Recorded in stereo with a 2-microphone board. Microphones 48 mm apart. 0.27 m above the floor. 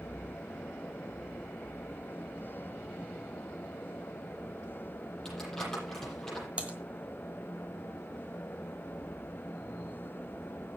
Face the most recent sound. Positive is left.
turn(degrees=-25)  # may be behind; listen again after turning